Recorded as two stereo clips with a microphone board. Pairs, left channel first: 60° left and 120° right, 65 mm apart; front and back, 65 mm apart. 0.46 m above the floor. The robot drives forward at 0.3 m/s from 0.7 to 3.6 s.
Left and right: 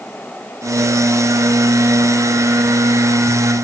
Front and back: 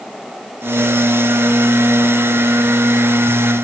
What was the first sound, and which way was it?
Only background noise.